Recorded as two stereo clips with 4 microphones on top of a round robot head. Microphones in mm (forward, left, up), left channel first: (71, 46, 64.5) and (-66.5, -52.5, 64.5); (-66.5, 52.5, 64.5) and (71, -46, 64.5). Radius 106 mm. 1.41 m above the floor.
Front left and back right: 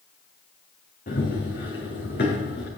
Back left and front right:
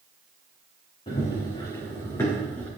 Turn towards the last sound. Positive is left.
turn(degrees=65)